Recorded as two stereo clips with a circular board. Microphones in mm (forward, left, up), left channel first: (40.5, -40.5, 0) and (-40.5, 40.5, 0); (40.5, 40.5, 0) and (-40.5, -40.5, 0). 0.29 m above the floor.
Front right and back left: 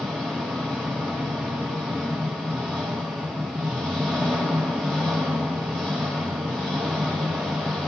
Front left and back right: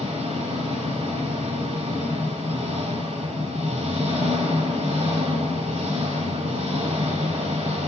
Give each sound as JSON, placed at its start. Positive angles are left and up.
{"t": 0.0, "sound": "an engine running", "azimuth_deg": -135, "distance_m": 8.0}